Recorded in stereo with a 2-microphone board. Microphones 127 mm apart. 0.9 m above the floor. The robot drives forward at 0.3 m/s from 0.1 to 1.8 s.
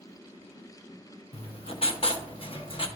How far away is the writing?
About 0.6 m.